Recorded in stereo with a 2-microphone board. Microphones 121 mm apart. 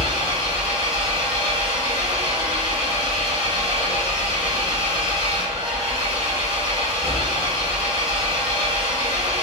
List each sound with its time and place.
0.0 s an engine running: 50° right (ahead or behind), 0.9 m